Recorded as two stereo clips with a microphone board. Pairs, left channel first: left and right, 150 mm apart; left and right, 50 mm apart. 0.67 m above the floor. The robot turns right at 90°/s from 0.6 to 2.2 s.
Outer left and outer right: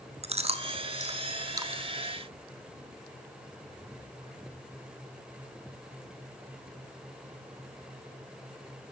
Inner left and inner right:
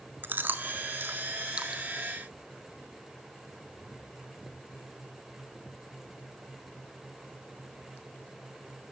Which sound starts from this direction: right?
Chewing, at 0.2 s.